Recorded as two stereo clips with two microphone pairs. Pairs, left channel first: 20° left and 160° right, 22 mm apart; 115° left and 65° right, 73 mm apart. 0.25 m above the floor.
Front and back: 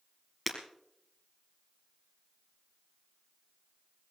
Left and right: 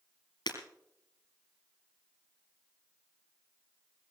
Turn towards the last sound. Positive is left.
turn(degrees=110)